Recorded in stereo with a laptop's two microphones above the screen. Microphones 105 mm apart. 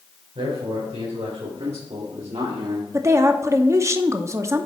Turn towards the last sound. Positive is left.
turn(degrees=-30)  # may be behind; listen again after turning